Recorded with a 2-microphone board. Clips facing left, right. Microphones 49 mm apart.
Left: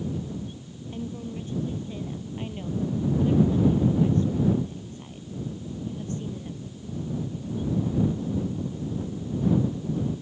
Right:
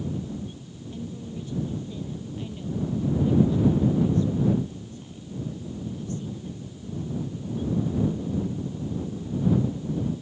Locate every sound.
0.9 s a woman speaking: 35° left (ahead or behind)